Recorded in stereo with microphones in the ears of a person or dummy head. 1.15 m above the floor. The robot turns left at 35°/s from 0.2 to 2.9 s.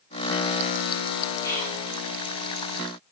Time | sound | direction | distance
1.4 | whispering | 10° left (ahead or behind) | 0.7 m